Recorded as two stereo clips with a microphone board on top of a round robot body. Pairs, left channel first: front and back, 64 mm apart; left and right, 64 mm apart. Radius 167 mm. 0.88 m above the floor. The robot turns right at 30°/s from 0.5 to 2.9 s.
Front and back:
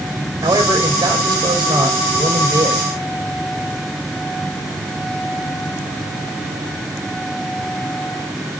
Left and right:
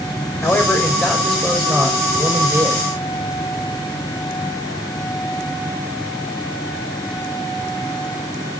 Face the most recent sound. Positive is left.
turn(degrees=-140)